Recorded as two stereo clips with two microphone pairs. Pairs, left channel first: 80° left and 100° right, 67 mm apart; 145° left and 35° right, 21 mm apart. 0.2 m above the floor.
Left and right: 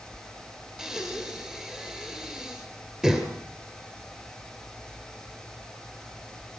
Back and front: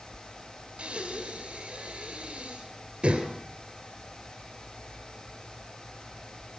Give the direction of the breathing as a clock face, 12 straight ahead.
1 o'clock.